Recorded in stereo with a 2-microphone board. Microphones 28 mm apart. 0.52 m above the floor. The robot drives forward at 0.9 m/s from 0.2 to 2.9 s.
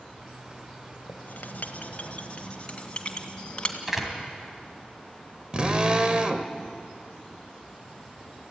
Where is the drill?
30° right (ahead or behind), 1.3 m.